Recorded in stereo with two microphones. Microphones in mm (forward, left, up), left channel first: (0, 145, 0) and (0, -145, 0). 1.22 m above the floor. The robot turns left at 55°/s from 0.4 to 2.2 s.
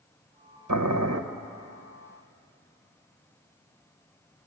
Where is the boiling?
80° right, 1.1 m; by 1.2 s 55° right (ahead or behind), 1.1 m.